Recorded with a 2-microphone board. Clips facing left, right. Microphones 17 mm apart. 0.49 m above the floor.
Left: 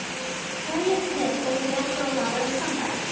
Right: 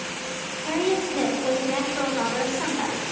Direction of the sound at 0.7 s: 55° right (ahead or behind).